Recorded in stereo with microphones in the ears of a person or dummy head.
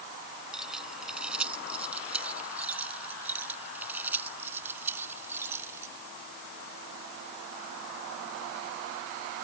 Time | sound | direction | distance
0.5 | keys jangling | centre (ahead or behind) | ?